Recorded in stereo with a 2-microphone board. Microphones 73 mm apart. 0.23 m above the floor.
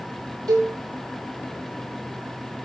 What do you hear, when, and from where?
0.5 s a cowbell: 55° right (ahead or behind), 4 m